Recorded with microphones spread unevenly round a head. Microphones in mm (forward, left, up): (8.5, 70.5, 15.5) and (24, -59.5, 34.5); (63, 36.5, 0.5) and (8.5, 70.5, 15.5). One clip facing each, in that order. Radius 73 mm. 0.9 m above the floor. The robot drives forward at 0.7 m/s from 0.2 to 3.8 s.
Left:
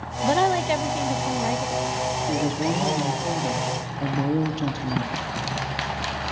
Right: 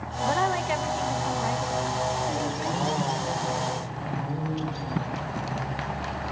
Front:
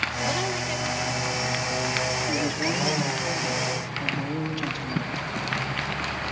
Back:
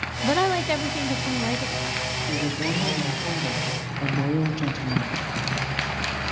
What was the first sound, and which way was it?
A woman speaking, 100° left.